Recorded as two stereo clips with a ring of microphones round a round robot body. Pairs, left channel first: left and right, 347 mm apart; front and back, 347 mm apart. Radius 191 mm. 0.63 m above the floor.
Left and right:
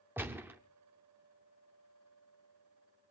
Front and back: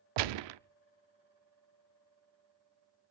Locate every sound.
0.2 s a gunshot: 175° right, 0.6 m